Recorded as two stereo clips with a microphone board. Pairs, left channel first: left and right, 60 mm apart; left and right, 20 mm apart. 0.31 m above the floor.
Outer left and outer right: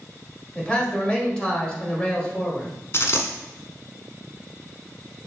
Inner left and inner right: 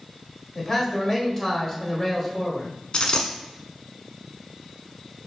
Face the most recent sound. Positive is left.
turn(degrees=50)  # may be behind; listen again after turning